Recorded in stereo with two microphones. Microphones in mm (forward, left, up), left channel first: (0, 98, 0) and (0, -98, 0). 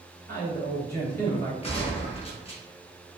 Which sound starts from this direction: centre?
A man speaking, at 0.3 s.